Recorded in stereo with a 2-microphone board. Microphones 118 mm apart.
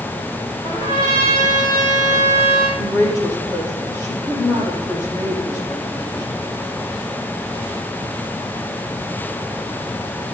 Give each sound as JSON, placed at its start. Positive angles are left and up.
{"t": 0.6, "sound": "a trumpet", "side_deg": 50, "distance_m": 4.5}
{"t": 2.8, "sound": "a woman speaking", "side_deg": 30, "distance_m": 6.5}